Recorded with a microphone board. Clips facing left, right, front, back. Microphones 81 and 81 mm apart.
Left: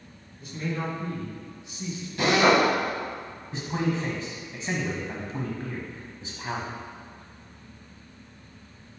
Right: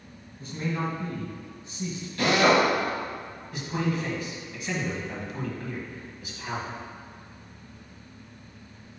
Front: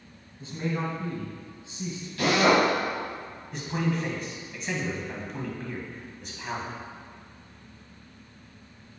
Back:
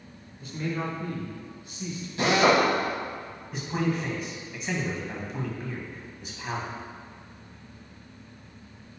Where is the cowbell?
No cowbell in this recording.